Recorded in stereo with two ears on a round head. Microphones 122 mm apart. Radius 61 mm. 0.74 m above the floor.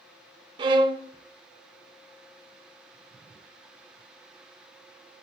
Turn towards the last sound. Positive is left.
turn(degrees=-35)  # may be behind; listen again after turning